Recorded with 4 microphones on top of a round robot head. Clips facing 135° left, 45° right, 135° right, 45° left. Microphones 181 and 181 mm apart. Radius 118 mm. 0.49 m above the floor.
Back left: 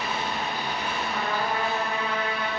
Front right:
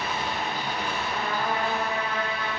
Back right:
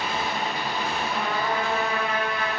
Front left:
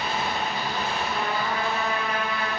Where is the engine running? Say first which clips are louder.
Even, even; 30° left, 1.9 m.